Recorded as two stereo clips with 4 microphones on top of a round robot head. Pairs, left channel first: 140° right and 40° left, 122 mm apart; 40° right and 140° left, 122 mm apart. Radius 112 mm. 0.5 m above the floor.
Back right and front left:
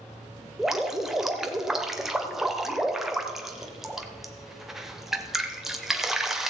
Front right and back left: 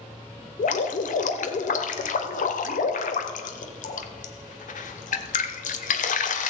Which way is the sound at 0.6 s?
50° right.